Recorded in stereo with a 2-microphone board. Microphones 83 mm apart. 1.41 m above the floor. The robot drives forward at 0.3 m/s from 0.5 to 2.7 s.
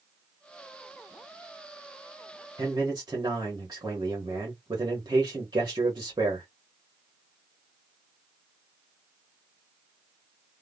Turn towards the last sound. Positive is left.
turn(degrees=-45)  # may be behind; listen again after turning